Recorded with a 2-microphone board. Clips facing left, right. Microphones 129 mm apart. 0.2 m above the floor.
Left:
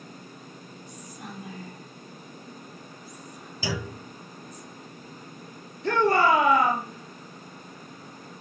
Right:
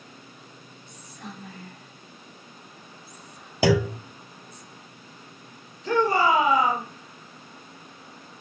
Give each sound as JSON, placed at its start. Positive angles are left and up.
{"t": 0.9, "sound": "whispering", "side_deg": 15, "distance_m": 5.0}
{"t": 3.6, "sound": "a clunk", "side_deg": -80, "distance_m": 0.8}
{"t": 5.8, "sound": "a shout", "side_deg": 65, "distance_m": 5.0}